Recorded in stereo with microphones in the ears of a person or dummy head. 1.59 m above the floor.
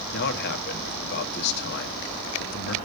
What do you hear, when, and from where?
0.1 s a man speaking: 65° left (ahead or behind), 1.6 m